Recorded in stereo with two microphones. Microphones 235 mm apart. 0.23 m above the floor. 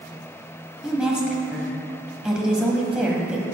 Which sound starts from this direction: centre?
A woman speaking, at 0.8 s.